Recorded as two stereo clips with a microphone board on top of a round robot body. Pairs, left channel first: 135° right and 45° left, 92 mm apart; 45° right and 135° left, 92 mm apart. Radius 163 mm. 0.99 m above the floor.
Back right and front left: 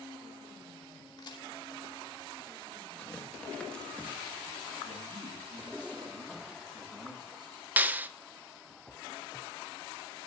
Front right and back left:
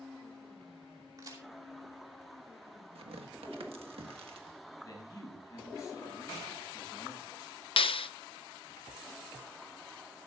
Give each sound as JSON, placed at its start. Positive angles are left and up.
{"t": 1.2, "sound": "a crack", "azimuth_deg": -175, "distance_m": 3.0}
{"t": 3.0, "sound": "tearing paper", "azimuth_deg": 150, "distance_m": 1.6}
{"t": 4.8, "sound": "a man speaking", "azimuth_deg": 10, "distance_m": 6.0}
{"t": 7.8, "sound": "a clap", "azimuth_deg": -25, "distance_m": 0.6}